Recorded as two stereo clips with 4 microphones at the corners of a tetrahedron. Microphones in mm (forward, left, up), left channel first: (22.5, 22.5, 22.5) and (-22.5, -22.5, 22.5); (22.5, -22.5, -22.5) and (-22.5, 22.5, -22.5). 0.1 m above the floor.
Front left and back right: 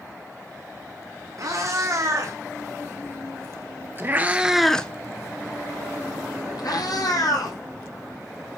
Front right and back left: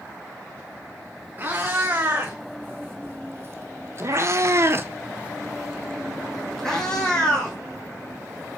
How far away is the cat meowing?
About 2.5 m.